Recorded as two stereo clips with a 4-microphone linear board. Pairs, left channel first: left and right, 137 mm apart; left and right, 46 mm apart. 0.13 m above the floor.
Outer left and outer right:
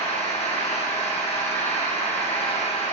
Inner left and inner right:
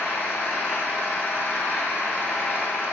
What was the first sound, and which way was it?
An engine running, 55° left (ahead or behind).